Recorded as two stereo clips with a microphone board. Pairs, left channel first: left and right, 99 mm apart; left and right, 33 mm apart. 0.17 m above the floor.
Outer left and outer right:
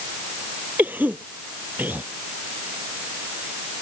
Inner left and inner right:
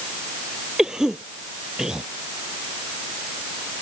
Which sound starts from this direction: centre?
A cough, at 0.8 s.